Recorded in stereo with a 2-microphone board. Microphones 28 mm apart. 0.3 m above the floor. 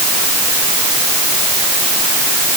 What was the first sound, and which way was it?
Only background noise.